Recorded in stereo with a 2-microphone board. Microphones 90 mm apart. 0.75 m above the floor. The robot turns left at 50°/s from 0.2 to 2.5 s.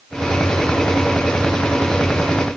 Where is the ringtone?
I don't hear a ringtone.